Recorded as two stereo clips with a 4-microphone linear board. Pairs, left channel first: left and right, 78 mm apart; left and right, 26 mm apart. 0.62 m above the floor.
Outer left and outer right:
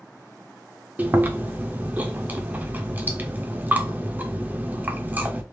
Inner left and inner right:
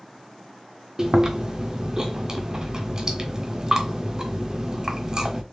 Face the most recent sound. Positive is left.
turn(degrees=-25)  # may be behind; listen again after turning